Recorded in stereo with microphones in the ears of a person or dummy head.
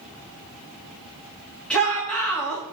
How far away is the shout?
About 2.5 m.